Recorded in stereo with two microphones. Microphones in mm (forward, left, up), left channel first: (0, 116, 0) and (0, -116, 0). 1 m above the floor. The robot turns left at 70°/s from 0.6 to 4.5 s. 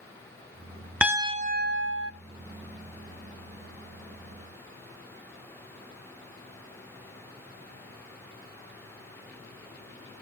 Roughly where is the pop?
No pop in this recording.